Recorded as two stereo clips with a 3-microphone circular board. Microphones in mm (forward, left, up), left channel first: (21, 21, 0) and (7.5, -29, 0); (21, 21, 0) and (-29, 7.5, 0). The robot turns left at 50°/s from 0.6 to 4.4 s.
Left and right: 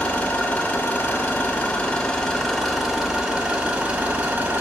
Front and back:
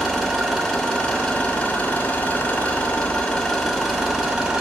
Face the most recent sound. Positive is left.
turn(degrees=-95)